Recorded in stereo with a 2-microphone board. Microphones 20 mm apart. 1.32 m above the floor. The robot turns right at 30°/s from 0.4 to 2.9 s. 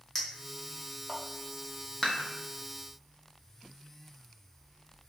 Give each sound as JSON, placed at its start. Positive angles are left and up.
{"t": 0.1, "sound": "a clink", "side_deg": 20, "distance_m": 0.9}
{"t": 2.0, "sound": "dishes clattering", "side_deg": 15, "distance_m": 0.9}